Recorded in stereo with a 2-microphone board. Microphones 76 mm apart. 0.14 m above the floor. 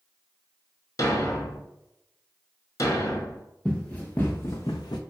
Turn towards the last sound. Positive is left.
turn(degrees=65)  # may be behind; listen again after turning